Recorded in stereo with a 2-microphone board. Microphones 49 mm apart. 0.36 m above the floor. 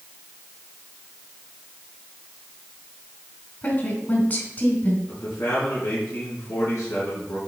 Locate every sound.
3.6 s a woman speaking: 40° left (ahead or behind), 2.5 m
5.1 s a man speaking: 65° left (ahead or behind), 3.5 m